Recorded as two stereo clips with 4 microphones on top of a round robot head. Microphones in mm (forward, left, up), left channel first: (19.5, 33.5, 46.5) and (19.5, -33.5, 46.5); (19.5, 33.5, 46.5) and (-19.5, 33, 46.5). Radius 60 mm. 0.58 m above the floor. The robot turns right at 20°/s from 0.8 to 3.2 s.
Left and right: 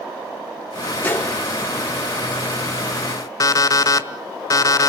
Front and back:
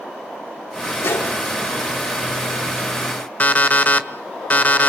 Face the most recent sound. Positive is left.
turn(degrees=55)